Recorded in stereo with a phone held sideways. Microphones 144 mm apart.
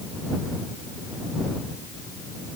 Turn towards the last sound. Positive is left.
No sound to turn to.